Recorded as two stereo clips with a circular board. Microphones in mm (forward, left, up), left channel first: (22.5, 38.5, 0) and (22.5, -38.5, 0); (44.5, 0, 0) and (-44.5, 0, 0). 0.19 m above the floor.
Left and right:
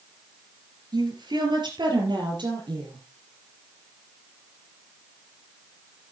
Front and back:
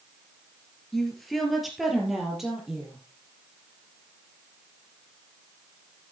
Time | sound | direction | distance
0.9 | a woman speaking | 85° right | 3 m